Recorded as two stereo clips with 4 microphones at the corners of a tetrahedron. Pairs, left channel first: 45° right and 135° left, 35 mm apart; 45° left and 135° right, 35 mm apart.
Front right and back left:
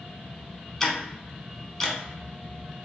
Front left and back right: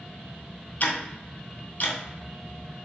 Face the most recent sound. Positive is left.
turn(degrees=25)